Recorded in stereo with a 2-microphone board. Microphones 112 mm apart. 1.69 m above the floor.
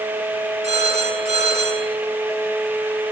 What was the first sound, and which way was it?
A phone ringing, 80° right.